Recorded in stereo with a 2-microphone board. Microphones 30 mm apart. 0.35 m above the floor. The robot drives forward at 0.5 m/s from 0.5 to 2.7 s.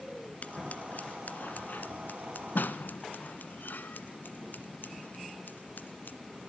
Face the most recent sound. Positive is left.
turn(degrees=80)